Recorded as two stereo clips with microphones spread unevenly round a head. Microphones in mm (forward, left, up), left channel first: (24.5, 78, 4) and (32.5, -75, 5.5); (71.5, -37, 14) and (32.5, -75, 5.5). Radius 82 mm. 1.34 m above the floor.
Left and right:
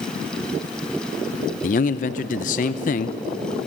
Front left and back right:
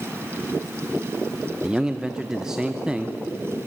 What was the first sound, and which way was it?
A man speaking, 135° left.